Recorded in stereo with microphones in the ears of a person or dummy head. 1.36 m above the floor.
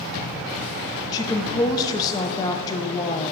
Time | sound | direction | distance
1.1 | a woman speaking | 20° left (ahead or behind) | 0.6 m